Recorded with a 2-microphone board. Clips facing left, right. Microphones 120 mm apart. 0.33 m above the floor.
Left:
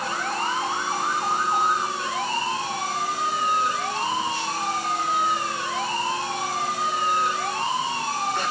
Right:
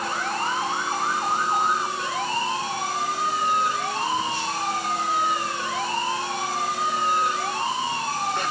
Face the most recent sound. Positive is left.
No sound to turn to.